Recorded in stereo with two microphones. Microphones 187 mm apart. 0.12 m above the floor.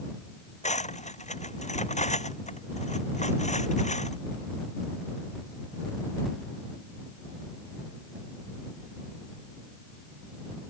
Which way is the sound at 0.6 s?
40° left (ahead or behind).